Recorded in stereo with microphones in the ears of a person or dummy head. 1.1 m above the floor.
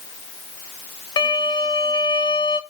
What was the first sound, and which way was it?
A violin, 25° left (ahead or behind).